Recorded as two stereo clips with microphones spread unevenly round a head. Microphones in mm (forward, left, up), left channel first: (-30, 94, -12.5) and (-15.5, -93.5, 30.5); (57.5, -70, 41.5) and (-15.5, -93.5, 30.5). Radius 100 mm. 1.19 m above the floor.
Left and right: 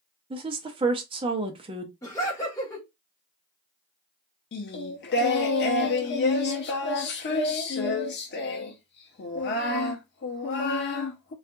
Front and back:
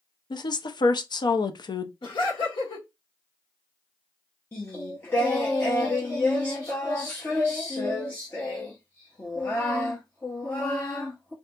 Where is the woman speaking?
15° right, 0.6 m.